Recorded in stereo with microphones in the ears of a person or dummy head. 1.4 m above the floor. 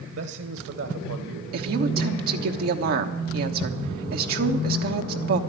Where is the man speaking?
70° right (ahead or behind), 0.9 m.